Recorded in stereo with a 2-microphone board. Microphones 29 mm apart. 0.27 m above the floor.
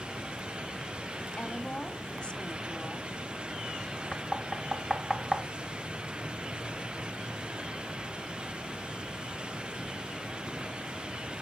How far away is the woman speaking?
About 1.3 m.